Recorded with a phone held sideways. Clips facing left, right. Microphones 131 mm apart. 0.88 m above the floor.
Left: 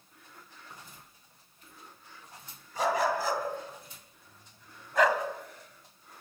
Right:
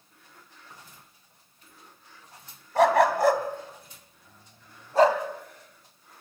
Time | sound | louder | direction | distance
2.8 | a dog barking | right 8 dB | 75° right (ahead or behind) | 2.5 m